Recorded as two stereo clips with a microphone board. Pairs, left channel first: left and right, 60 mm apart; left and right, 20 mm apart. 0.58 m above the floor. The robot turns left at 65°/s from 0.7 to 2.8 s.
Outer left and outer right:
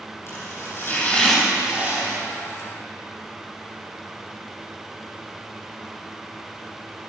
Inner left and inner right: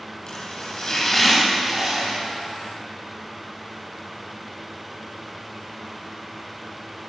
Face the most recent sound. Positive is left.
turn(degrees=-90)